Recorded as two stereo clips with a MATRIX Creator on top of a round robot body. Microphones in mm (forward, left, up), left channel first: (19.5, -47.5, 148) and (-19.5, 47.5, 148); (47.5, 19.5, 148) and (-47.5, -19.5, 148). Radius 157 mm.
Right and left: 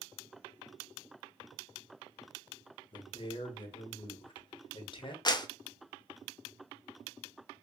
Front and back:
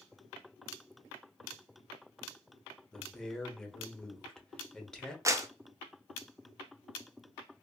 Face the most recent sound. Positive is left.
turn(degrees=-105)